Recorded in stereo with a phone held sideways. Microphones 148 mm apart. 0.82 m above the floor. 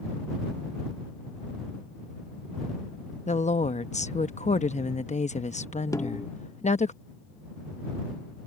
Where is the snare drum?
25° left (ahead or behind).